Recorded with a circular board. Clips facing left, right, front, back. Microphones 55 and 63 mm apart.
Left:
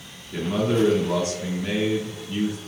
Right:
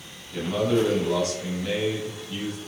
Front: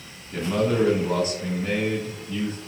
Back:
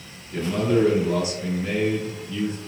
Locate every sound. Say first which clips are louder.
0.3 s a man speaking: even, back 1 dB; 30° left, 1.8 m